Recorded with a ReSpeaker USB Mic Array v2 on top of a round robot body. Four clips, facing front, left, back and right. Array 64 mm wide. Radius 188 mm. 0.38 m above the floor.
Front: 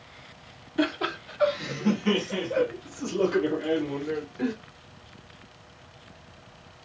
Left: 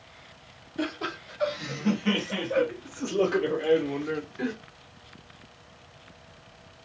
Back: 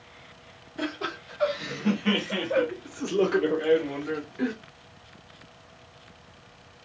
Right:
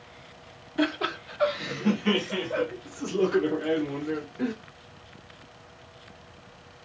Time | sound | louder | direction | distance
0.8 | laughter | right 5 dB, front 5 dB | 55° right | 1.2 m